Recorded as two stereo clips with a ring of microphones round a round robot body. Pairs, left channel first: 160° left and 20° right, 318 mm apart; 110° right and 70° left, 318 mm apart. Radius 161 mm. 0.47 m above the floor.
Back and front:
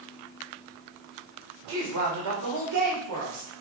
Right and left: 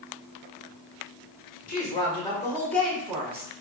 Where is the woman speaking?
50° right, 1.9 m; by 3.5 s 10° right, 1.8 m.